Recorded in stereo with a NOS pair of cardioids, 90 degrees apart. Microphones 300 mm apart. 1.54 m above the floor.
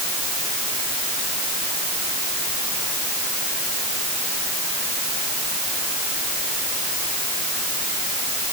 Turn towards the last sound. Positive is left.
No sound to turn to.